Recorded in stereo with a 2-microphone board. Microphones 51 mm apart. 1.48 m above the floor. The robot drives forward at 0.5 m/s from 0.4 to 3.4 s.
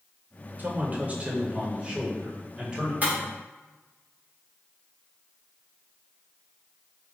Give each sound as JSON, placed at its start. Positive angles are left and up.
{"t": 0.6, "sound": "a man speaking", "side_deg": -35, "distance_m": 0.7}
{"t": 3.0, "sound": "breaking glass", "side_deg": -35, "distance_m": 1.7}